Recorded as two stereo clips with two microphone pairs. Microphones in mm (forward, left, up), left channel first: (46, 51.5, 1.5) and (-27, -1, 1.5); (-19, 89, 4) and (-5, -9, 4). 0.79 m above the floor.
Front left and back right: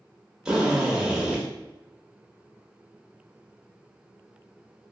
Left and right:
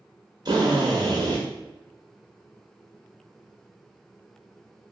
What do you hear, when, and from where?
0.5 s a drill: 65° right, 1.2 m